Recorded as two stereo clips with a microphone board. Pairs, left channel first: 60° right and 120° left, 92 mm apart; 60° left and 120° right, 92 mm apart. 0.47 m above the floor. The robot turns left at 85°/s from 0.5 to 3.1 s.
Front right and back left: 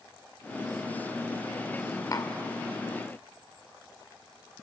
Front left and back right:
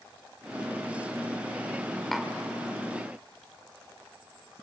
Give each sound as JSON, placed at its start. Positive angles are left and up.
{"t": 2.1, "sound": "tapping", "azimuth_deg": -25, "distance_m": 1.8}